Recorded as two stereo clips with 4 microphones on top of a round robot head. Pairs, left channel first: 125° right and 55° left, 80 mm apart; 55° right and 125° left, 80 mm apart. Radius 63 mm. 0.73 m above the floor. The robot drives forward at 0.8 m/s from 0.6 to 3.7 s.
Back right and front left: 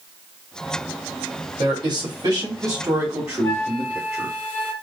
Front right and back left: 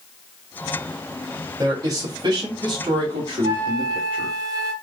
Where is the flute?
170° left, 1.1 m; by 4.7 s 175° left, 1.3 m.